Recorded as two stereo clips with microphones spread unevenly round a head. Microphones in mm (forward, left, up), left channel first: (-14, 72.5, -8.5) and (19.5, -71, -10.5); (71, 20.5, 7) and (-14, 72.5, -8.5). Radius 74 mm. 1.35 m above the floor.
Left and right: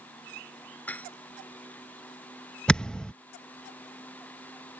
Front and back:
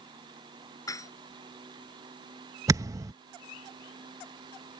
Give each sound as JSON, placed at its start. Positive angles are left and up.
{"t": 0.9, "sound": "dishes clattering", "azimuth_deg": 25}
{"t": 2.7, "sound": "a thud", "azimuth_deg": 175}